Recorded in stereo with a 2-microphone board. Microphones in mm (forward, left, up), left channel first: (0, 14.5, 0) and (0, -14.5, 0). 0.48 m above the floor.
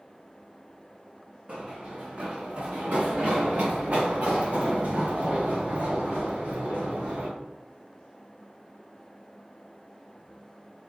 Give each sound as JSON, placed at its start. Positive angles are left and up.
{"t": 1.5, "sound": "running footsteps", "side_deg": -45, "distance_m": 2.0}